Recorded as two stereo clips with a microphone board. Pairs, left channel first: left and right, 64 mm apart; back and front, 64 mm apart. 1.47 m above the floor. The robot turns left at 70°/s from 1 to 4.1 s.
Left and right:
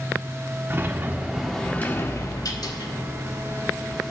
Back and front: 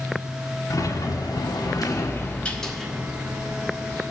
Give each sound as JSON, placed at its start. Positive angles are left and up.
{"t": 0.7, "sound": "a sliding door", "azimuth_deg": -155, "distance_m": 1.5}